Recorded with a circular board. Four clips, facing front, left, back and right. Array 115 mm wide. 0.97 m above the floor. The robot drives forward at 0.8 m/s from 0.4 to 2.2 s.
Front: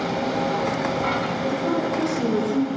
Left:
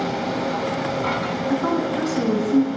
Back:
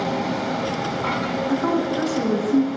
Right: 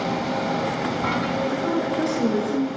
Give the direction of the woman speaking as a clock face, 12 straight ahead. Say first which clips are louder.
Left 2 dB, back 3 dB; 8 o'clock.